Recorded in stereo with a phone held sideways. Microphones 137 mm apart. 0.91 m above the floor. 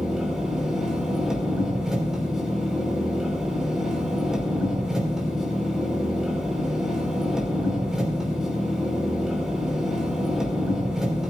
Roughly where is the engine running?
Centre.